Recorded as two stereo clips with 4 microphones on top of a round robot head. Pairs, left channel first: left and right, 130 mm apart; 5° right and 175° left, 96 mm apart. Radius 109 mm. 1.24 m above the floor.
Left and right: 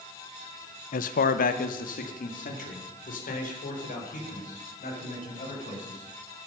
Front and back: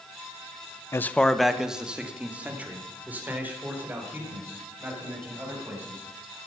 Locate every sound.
0.9 s a man speaking: 60° left, 0.7 m; by 6.4 s 105° left, 8.5 m